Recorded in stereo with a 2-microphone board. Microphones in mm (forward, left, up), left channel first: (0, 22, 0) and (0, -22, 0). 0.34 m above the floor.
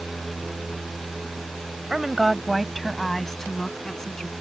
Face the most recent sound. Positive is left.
turn(degrees=15)  # may be behind; listen again after turning